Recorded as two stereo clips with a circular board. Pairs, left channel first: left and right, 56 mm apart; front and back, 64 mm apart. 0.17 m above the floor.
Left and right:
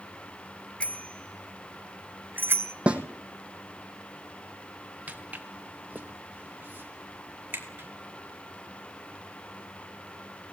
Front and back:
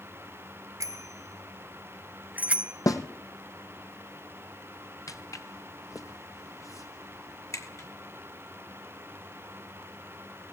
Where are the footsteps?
30° right, 2 m; by 7.9 s 35° right, 4.5 m.